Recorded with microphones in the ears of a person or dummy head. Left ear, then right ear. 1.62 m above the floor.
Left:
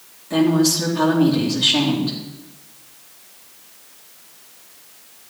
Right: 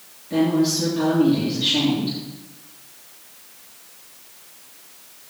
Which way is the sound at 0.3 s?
40° left (ahead or behind).